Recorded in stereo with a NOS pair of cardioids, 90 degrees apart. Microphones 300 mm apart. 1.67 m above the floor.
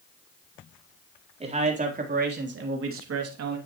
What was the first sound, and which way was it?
A man speaking, 20° right.